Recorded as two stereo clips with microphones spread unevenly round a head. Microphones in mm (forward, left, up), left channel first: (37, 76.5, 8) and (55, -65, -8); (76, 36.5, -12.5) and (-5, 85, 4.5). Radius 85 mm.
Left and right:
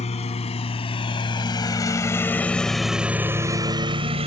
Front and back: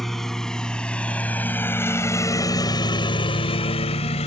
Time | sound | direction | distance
0.0 | a lawn mower | 60° left | ?